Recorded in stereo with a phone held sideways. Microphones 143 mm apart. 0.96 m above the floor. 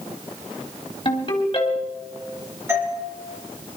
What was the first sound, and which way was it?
A ringtone, 35° left (ahead or behind).